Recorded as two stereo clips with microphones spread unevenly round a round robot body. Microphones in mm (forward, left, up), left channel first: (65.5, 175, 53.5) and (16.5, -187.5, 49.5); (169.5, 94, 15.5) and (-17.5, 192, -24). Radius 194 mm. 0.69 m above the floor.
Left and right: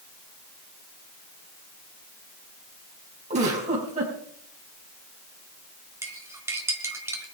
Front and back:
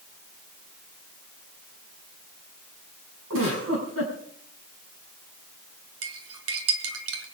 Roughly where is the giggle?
Behind.